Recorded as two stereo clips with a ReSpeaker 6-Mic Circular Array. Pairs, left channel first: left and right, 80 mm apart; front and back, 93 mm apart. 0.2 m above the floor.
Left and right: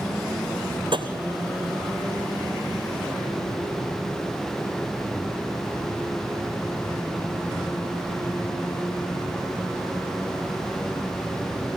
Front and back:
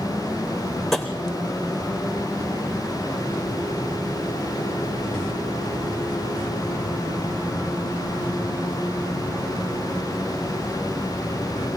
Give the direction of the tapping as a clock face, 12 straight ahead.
3 o'clock.